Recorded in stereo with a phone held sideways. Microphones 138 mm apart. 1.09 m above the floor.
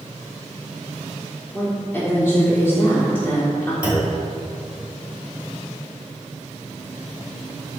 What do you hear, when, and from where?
1.5 s a woman speaking: 20° left (ahead or behind), 3 m
3.8 s a clunk: 10° right (ahead or behind), 3 m